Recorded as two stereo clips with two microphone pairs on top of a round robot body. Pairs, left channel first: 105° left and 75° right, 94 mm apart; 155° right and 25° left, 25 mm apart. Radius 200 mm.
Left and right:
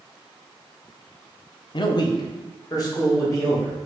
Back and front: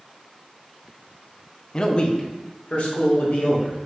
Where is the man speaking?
145° left, 0.5 m; by 3.8 s 160° left, 1.5 m.